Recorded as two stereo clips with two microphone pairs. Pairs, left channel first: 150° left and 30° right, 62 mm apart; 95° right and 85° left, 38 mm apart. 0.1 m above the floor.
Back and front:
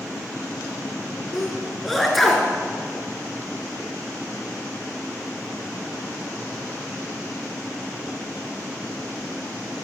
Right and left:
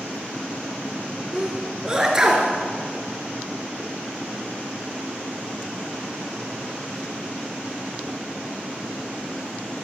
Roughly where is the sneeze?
Ahead left.